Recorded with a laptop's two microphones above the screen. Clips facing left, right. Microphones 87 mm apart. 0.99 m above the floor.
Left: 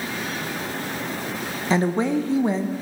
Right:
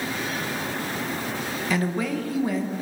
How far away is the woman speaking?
About 0.5 m.